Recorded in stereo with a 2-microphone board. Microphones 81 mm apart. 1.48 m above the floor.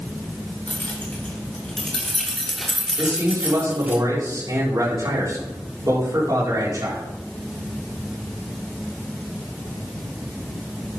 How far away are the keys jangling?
About 4 m.